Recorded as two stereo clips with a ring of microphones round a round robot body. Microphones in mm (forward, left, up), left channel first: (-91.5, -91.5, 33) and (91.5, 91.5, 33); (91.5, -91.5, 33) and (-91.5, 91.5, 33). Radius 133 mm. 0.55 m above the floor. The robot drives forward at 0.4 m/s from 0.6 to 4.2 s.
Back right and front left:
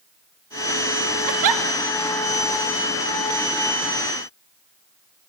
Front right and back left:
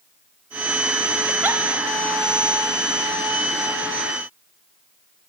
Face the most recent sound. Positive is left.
turn(degrees=155)